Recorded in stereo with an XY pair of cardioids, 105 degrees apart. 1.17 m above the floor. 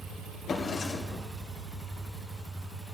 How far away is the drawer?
About 2.5 m.